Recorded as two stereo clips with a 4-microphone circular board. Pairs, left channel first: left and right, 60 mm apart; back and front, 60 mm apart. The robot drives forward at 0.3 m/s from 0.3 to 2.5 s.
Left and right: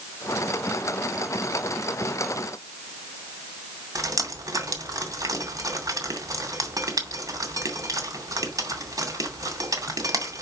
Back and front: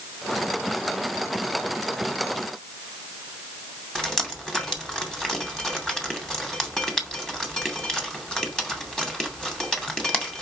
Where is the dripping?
100° right, 2.5 m.